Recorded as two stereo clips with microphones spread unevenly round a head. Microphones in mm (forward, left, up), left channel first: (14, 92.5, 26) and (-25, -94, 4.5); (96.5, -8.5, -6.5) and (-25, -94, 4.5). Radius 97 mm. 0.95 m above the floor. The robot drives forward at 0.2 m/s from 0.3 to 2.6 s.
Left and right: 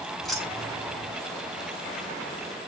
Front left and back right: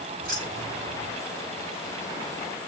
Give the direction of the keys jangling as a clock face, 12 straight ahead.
6 o'clock.